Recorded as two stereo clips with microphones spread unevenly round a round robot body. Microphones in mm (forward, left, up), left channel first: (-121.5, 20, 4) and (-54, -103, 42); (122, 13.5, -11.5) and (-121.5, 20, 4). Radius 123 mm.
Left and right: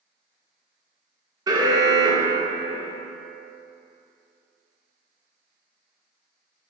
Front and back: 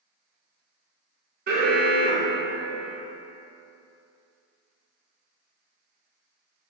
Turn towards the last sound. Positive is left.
turn(degrees=-135)